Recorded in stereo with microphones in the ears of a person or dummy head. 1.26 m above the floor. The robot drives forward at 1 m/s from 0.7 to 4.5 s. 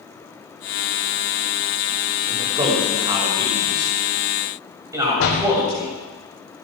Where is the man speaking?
20° right (ahead or behind), 5.5 m; by 5.9 s 15° right (ahead or behind), 7.5 m.